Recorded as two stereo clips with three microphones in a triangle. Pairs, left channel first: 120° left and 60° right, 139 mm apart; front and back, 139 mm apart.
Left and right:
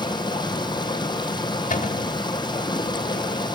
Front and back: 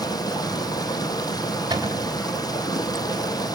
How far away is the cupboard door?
About 2.5 m.